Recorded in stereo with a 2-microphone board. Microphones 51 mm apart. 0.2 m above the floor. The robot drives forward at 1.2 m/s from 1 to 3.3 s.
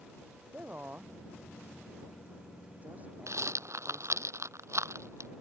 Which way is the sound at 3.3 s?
70° right (ahead or behind).